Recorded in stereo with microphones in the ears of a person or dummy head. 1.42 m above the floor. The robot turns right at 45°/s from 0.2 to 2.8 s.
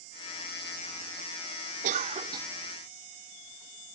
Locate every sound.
1.8 s a cough: 45° right (ahead or behind); by 2.5 s 15° right (ahead or behind)